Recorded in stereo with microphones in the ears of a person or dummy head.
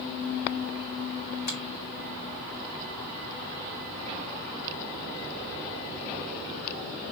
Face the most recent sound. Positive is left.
turn(degrees=50)  # may be behind; listen again after turning